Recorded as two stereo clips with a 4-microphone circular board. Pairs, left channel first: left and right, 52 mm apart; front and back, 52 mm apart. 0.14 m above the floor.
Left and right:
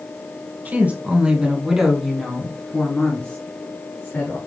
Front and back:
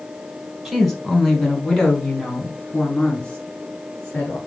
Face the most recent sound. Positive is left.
turn(degrees=50)